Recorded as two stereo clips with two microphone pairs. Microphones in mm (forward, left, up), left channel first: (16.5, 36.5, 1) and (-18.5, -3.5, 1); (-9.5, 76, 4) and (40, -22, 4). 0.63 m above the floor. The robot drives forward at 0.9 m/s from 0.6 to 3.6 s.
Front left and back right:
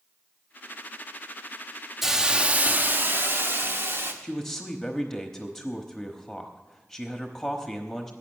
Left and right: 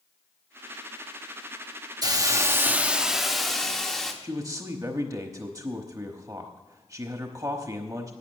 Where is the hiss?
50° right, 0.9 m; by 4.1 s 160° right, 1.4 m.